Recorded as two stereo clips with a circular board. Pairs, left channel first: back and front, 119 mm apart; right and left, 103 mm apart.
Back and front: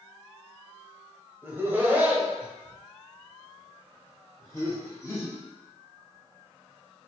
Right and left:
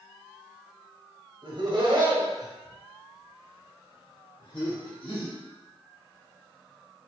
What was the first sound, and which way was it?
Laughter, 65° left.